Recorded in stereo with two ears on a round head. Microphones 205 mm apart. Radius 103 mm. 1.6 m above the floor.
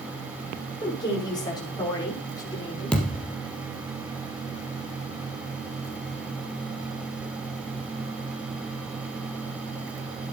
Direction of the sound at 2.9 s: 5° left (ahead or behind).